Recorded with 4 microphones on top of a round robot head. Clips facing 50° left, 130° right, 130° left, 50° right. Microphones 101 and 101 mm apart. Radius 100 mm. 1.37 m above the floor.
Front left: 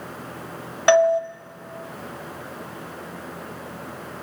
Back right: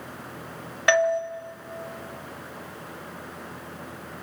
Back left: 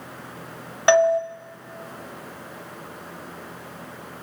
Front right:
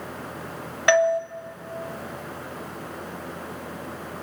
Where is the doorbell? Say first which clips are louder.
Front left 5 dB, back left 2 dB; 90° left, 0.5 m.